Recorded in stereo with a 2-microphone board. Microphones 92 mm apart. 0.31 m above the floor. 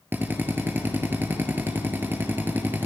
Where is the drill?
25° right (ahead or behind), 2.5 m.